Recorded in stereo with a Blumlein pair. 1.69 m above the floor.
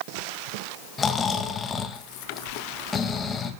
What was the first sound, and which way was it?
Snoring, 15° left.